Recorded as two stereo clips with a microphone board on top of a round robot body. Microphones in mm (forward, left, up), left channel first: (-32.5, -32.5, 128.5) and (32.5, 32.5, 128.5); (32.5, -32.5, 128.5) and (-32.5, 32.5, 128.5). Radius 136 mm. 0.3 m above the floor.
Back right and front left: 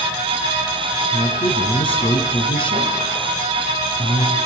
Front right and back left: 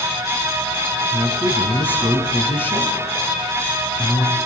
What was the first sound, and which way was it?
A man speaking, 110° right.